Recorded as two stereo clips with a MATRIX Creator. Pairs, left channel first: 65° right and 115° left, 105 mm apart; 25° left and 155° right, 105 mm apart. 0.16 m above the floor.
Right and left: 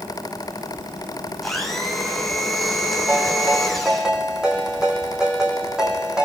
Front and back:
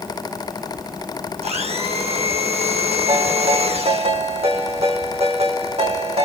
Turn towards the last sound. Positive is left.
turn(degrees=-165)